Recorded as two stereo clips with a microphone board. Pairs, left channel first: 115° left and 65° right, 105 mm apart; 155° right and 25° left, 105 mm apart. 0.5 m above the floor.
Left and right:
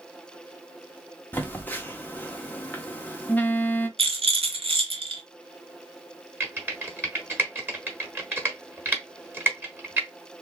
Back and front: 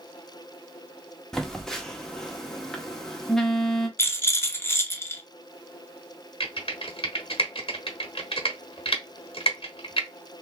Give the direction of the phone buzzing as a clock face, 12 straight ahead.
8 o'clock.